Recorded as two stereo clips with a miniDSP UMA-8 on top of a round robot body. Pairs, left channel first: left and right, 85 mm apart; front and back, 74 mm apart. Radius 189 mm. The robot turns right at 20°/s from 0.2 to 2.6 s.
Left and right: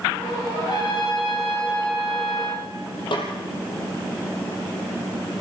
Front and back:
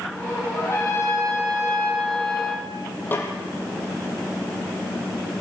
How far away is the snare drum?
About 5.5 m.